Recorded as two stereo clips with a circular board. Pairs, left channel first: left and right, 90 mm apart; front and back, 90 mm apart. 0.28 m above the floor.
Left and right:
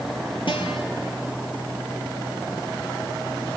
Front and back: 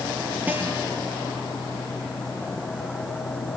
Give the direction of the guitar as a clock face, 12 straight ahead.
8 o'clock.